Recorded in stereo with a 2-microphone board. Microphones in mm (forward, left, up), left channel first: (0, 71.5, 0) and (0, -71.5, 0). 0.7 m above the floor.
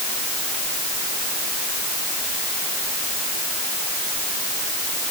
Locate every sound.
Only background noise.